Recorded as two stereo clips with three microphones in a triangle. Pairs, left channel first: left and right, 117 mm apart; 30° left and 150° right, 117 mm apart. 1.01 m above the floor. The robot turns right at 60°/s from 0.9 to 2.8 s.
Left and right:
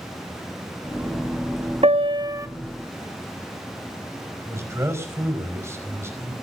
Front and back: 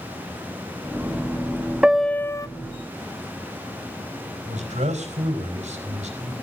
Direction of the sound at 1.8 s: 65° right.